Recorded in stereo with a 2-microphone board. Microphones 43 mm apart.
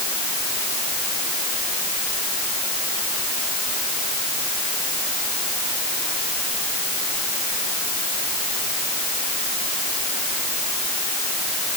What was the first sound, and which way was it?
Only background noise.